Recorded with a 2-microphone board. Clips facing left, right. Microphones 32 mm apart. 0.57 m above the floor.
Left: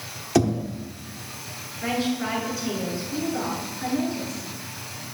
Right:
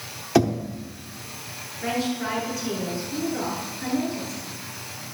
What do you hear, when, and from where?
0.3 s knocking: 15° right (ahead or behind), 1.0 m
1.8 s a woman speaking: 10° left (ahead or behind), 7.5 m